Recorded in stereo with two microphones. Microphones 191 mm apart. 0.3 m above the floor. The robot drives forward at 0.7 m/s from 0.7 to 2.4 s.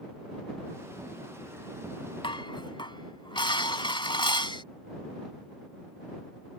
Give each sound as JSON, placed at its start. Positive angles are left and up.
{"t": 2.2, "sound": "dishes clattering", "side_deg": 25}